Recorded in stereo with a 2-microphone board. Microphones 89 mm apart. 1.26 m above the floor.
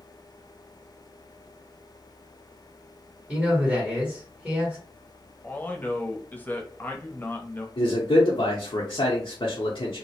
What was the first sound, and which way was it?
A man speaking, 5° right (ahead or behind).